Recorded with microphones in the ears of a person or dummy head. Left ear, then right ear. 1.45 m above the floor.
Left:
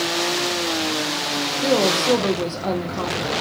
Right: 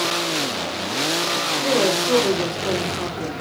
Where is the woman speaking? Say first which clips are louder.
Left 3 dB; 60° left (ahead or behind), 0.8 m.